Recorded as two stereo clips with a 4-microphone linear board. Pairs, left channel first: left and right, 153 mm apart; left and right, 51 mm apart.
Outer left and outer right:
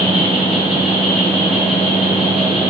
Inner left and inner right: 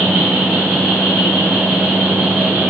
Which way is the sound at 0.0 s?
Centre (ahead or behind).